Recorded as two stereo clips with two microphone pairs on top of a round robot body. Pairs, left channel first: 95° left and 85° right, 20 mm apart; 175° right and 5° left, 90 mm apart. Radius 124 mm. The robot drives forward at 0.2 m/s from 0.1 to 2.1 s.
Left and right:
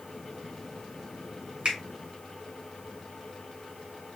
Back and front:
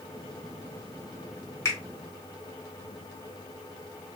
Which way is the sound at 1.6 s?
120° right.